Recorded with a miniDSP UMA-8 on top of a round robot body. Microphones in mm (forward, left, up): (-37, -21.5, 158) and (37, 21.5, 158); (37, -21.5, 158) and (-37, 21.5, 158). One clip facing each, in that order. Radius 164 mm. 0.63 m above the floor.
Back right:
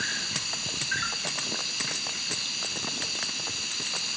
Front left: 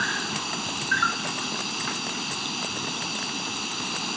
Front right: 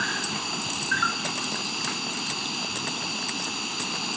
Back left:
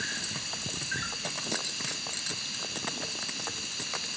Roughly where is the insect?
Ahead.